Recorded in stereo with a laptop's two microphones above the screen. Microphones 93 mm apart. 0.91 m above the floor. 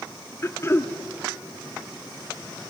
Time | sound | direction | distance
0.4 | throat clearing | 30° left (ahead or behind) | 1.0 m